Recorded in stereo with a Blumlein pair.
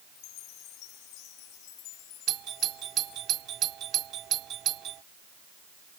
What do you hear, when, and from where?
0.1 s a chime: 40° left
2.3 s a doorbell: 30° right